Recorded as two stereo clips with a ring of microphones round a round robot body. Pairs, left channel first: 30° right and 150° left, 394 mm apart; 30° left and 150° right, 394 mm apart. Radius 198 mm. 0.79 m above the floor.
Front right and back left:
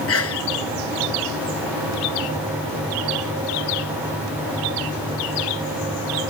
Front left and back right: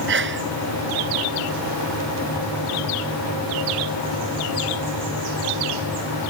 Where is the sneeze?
85° right.